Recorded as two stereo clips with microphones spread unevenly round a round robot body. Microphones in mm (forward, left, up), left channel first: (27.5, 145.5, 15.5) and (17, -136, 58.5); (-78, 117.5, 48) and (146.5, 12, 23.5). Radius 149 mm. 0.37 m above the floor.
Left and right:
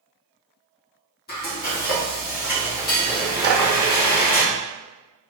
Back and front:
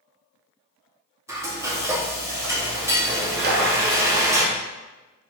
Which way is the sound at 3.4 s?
40° right.